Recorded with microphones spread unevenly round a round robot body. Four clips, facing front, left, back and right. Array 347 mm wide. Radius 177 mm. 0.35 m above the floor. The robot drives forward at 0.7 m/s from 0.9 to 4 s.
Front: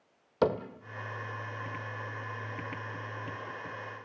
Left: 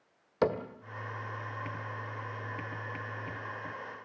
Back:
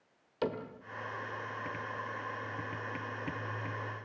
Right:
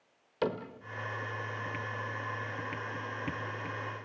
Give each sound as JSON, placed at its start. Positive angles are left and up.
{"t": 0.4, "sound": "a cupboard door", "azimuth_deg": 30, "distance_m": 1.5}